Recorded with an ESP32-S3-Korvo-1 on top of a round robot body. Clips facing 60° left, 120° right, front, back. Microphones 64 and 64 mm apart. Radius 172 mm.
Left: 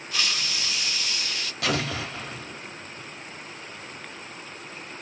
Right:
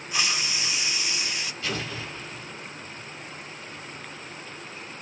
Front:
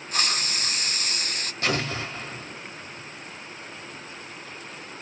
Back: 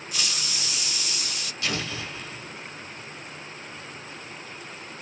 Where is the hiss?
50° right, 0.7 m.